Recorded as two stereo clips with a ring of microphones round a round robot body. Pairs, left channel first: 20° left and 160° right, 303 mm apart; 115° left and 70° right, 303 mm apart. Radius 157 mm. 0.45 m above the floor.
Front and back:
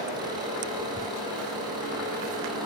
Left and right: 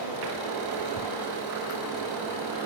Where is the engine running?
80° right, 9 m.